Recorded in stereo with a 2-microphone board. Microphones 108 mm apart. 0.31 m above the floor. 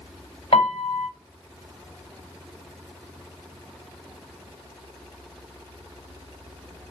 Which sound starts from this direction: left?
A piano, at 0.5 s.